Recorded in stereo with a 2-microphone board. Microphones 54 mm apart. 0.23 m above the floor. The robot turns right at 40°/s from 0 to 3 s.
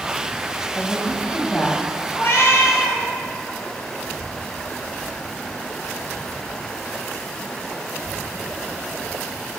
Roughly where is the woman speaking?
Left.